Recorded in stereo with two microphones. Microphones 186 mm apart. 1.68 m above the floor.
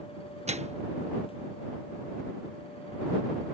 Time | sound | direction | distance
0.5 | a microwave | 35° right (ahead or behind) | ?